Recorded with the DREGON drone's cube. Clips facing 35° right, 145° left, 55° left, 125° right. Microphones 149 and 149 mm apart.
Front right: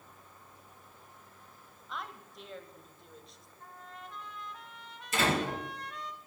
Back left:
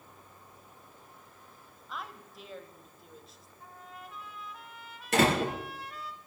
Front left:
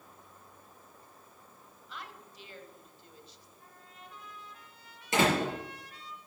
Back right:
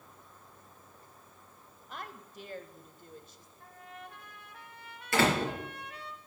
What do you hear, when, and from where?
1.9 s a woman speaking: 130° right, 1.2 m
3.6 s a trumpet: 130° right, 1.4 m
5.1 s a door slam: 125° left, 4.5 m